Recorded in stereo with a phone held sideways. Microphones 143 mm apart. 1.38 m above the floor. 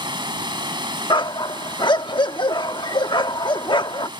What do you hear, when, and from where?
0.0 s running water: 30° right (ahead or behind)
1.1 s a dog barking: 30° left (ahead or behind)